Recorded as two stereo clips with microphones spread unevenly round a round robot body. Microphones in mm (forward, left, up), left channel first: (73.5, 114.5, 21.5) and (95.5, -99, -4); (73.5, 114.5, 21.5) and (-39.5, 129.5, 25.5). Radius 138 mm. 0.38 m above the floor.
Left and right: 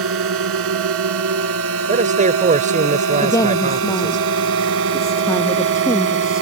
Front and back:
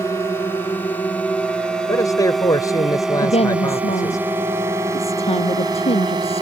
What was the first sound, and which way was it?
A drone, 85° right.